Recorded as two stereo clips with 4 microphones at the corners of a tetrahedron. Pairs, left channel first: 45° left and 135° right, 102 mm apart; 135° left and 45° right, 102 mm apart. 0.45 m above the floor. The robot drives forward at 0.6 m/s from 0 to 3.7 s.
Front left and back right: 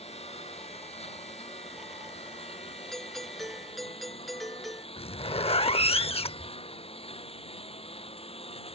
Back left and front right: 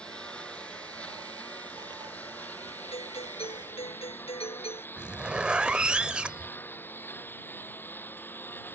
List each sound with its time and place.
0.0 s a lawn mower: 55° left; by 8.8 s 65° left
2.9 s a doorbell: 130° left; by 4.9 s 135° left
5.0 s a zipper: 35° left